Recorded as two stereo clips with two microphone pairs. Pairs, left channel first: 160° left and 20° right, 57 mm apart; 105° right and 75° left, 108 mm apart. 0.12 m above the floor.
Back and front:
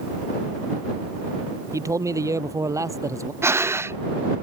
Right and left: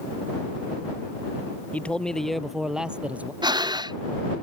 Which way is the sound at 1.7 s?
30° right.